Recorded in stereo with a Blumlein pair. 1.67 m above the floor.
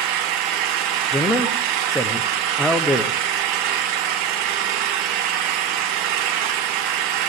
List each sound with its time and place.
0.0 s an engine running: 40° right, 1.1 m
1.1 s a man speaking: 5° left, 1.1 m